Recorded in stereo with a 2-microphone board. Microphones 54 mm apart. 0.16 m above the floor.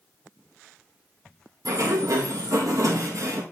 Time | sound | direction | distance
1.6 | a sliding door | 80° right | 1.8 m